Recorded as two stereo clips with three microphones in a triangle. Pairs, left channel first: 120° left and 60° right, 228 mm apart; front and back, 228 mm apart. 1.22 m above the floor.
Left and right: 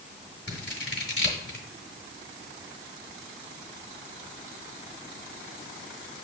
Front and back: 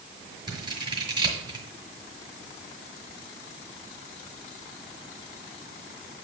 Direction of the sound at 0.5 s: 115° left.